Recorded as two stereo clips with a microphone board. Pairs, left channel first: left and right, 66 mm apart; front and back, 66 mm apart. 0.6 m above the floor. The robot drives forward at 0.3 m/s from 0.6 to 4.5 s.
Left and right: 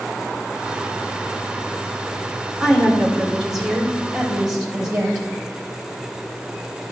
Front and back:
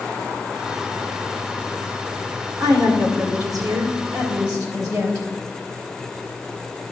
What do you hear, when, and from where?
2.6 s a woman speaking: 170° right, 1.9 m; by 5.2 s 175° right, 2.5 m